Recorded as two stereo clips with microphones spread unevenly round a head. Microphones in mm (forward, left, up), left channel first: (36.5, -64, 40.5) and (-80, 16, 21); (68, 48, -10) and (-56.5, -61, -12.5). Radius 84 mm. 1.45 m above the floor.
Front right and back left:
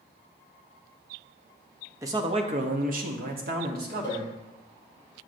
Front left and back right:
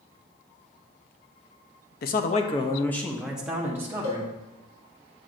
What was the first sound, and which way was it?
A man speaking, 75° left.